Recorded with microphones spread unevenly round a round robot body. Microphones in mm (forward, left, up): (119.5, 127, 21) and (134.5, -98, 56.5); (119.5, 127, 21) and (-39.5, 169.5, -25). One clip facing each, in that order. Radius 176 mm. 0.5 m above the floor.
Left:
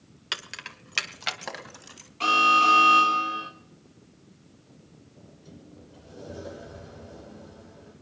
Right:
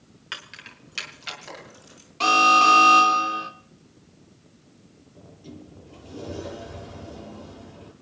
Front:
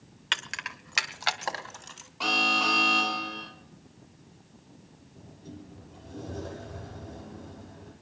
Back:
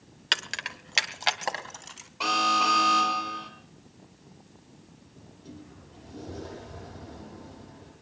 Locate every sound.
0.3 s keys jangling: 130° left, 1.0 m; by 2.1 s 90° left, 3 m
2.2 s an alarm: 125° right, 2.5 m
5.2 s a sliding door: 100° right, 6.5 m